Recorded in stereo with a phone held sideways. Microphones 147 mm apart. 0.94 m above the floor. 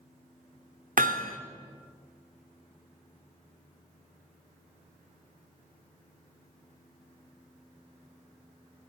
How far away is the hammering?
About 1.3 m.